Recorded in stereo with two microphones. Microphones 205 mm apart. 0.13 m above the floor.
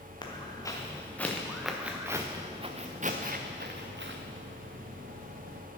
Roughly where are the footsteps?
Left.